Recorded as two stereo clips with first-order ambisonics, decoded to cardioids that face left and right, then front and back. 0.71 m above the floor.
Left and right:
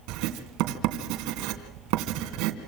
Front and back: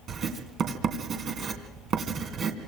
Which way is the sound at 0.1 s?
120° right.